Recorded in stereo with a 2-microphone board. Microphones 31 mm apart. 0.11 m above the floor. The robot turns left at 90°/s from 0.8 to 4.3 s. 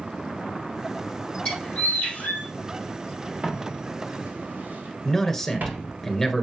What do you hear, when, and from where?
1.4 s a bird: 140° left, 4 m; by 2.5 s 50° left, 4 m
3.4 s footsteps: 45° right (ahead or behind), 3 m; by 5.9 s 75° right (ahead or behind), 3 m
5.0 s a man speaking: 15° left (ahead or behind), 1.4 m